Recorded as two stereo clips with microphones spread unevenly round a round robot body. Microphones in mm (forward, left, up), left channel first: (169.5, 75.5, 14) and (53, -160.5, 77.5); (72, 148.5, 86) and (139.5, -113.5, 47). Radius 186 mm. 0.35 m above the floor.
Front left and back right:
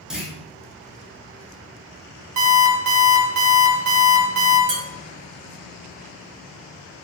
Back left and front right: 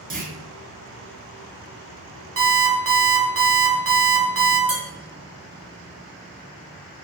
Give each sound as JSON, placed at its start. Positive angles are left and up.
{"t": 0.1, "sound": "a clunk", "azimuth_deg": -20, "distance_m": 0.8}
{"t": 2.4, "sound": "an alarm clock", "azimuth_deg": -75, "distance_m": 1.0}
{"t": 4.7, "sound": "dishes clattering", "azimuth_deg": -105, "distance_m": 1.6}